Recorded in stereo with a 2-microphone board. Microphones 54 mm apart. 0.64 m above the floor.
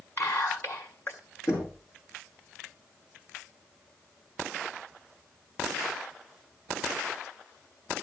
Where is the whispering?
45° left (ahead or behind), 3 m.